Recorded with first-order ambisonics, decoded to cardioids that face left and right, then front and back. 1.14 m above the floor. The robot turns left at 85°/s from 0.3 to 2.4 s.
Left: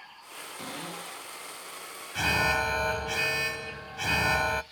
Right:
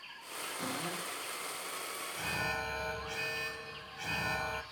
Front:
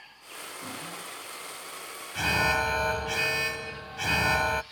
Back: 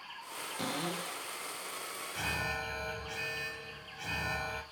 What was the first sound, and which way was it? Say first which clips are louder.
A cupboard door: left 1 dB, back 5 dB; 170° left.